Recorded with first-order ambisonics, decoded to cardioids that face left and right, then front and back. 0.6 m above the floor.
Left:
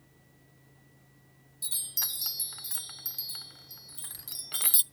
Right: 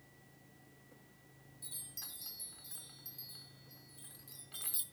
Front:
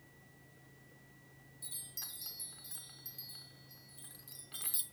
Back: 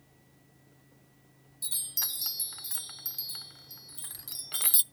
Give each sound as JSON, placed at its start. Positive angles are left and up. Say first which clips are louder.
{"t": 1.6, "sound": "a chime", "louder": "left 15 dB, back 13 dB", "azimuth_deg": 130, "distance_m": 0.6}